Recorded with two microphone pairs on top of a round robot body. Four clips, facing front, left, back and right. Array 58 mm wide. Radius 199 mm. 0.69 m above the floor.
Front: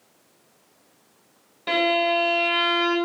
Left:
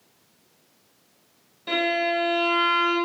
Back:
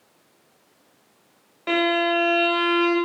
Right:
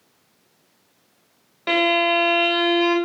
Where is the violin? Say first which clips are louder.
Right 5 dB, even; 115° right, 4 m.